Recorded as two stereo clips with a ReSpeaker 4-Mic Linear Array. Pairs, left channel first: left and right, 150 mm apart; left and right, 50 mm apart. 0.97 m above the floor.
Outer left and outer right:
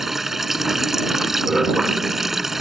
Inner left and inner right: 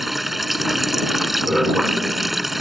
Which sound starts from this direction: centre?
Running water, at 0.0 s.